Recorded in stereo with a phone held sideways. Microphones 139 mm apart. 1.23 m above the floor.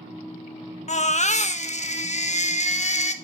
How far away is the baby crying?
About 1.1 m.